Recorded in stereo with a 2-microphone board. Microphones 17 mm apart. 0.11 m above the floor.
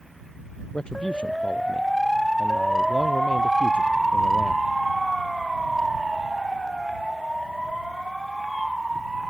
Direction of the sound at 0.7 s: 60° left (ahead or behind).